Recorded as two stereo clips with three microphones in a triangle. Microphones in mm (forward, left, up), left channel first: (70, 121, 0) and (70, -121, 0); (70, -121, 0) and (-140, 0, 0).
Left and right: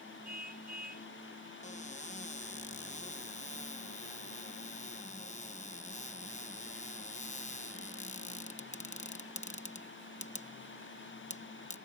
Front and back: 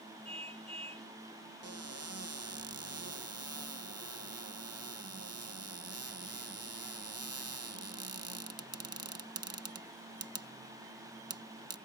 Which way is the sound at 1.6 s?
145° left.